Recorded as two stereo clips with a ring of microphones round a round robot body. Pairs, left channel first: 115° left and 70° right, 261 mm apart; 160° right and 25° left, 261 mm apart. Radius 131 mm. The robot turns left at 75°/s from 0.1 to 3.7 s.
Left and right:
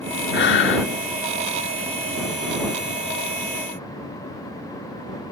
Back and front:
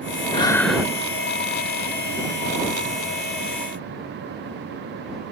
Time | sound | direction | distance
0.3 | breathing | 140° left | ?